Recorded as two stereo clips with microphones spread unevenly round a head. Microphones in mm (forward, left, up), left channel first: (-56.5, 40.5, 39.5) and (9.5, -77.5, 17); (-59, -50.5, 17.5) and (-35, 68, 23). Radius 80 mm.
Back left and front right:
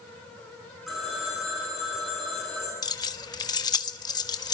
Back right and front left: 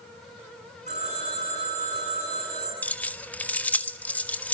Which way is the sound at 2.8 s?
Straight behind.